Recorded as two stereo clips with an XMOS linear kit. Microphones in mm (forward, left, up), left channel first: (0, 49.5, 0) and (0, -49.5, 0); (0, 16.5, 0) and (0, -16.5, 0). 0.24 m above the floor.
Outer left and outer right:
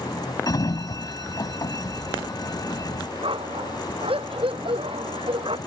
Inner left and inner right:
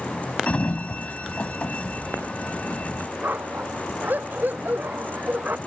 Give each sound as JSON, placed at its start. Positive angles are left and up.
{"t": 0.5, "sound": "a sliding door", "side_deg": 40}
{"t": 3.2, "sound": "a dog barking", "side_deg": -70}